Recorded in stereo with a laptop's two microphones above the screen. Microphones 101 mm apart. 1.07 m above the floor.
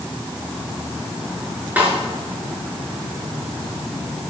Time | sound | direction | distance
1.8 | a snare drum | 15° right (ahead or behind) | 5 m